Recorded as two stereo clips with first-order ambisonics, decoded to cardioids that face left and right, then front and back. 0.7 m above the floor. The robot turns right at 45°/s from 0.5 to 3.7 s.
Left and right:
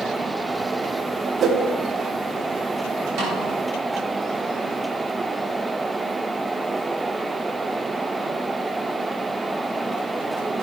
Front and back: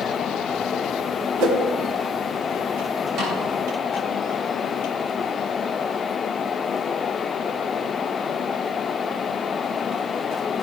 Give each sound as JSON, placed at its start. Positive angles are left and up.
{"t": 1.4, "sound": "a whoosh", "azimuth_deg": -160, "distance_m": 1.8}
{"t": 3.2, "sound": "a snare drum", "azimuth_deg": -130, "distance_m": 6.0}